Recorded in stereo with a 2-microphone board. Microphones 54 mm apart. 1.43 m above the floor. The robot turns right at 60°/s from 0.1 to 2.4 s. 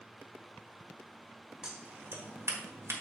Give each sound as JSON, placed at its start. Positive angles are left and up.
{"t": 1.6, "sound": "scissors", "side_deg": -10, "distance_m": 1.4}